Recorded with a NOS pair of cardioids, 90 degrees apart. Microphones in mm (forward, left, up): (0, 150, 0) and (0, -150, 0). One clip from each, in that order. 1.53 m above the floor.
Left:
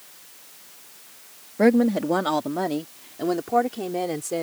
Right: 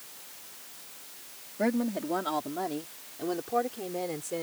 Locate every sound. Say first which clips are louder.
1.6 s a woman speaking: left 10 dB; 65° left; by 4.4 s 55° left